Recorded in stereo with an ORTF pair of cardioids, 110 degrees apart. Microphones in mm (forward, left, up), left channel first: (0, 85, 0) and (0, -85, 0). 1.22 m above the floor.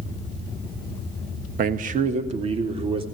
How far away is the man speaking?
About 1.5 m.